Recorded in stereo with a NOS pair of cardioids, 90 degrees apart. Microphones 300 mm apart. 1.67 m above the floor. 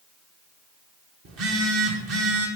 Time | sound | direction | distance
1.2 | a phone buzzing | 50° right | 1.7 m